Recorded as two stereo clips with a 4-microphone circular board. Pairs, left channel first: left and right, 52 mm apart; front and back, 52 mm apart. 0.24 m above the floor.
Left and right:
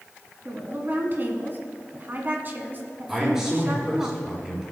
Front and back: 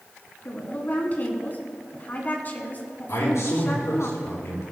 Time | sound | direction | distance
0.5 | a woman speaking | 45° right | 1.9 m
3.1 | a man speaking | 10° right | 5 m